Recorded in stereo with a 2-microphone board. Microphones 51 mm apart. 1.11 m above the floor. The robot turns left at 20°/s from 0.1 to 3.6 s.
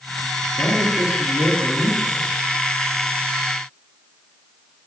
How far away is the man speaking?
About 1.8 m.